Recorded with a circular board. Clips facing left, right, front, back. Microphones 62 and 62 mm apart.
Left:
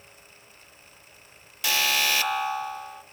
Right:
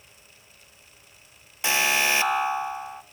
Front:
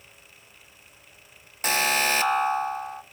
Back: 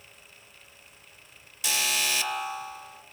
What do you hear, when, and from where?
1.6 s an alarm: 30° right, 1.3 m